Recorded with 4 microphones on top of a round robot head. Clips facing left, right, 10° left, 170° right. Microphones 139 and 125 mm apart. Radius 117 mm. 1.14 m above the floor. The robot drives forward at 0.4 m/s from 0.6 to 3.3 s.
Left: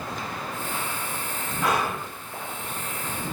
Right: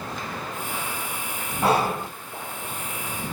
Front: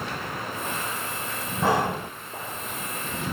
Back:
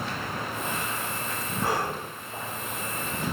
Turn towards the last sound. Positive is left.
turn(degrees=-45)